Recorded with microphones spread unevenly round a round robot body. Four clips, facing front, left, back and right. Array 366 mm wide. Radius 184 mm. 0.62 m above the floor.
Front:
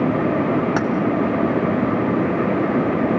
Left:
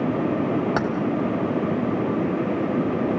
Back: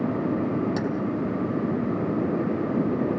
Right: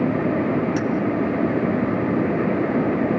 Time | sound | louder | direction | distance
0.8 | keys jangling | even, front 6 dB | 40° left | 2.5 m